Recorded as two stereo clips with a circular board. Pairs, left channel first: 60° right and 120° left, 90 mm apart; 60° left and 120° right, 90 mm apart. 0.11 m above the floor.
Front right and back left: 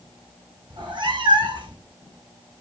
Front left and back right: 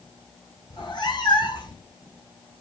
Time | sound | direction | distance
0.7 | a cat meowing | 95° left | 0.8 m